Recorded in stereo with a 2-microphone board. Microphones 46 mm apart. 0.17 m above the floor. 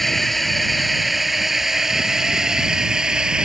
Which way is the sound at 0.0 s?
5° left (ahead or behind).